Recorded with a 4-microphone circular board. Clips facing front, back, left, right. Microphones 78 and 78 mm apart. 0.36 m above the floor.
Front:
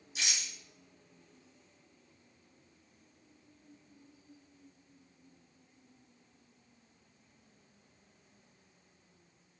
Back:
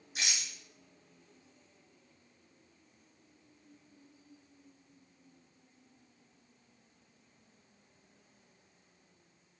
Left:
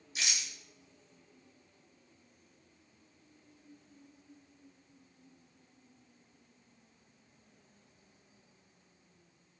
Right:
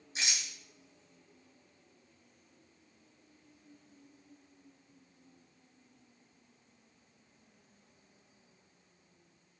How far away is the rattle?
About 1.8 m.